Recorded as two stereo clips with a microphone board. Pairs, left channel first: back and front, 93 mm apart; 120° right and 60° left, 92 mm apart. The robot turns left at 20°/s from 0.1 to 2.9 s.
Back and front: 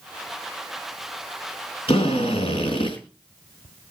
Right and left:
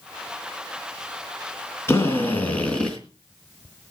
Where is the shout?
I don't hear a shout.